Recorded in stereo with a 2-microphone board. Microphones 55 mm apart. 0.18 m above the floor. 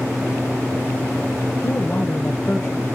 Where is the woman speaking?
60° left (ahead or behind), 4 m; by 2.8 s 50° left (ahead or behind), 3.5 m.